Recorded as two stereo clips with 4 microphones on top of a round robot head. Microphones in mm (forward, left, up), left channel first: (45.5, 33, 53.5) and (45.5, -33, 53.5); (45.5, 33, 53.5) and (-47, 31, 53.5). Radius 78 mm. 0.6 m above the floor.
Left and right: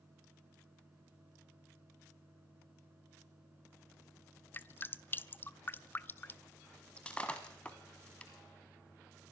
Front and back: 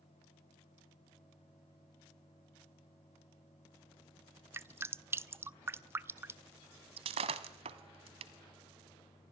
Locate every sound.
4.5 s dripping: 130° left, 0.6 m
7.0 s breaking glass: 170° left, 1.0 m